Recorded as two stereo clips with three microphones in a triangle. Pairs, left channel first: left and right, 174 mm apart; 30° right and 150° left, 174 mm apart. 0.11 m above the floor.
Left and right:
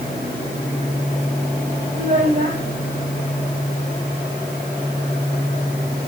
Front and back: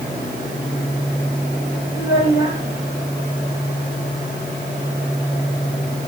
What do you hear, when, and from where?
1.9 s a child speaking: 50° right, 4.5 m